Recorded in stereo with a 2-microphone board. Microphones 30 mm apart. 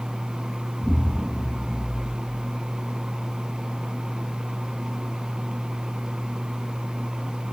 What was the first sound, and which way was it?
An explosion, 30° left (ahead or behind).